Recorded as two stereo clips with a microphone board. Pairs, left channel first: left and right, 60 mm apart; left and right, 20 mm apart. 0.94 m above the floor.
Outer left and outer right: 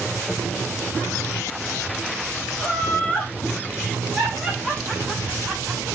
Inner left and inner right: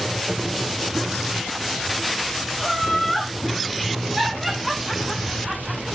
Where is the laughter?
10° right (ahead or behind), 3 m; by 5.8 s 20° right (ahead or behind), 4.5 m.